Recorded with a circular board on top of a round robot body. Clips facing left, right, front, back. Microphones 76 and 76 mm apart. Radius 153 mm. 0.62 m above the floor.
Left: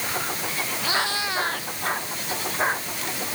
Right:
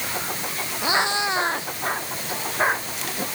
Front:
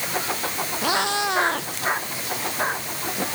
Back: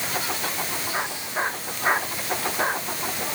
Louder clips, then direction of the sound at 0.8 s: Right 5 dB, front 7 dB; 20° right.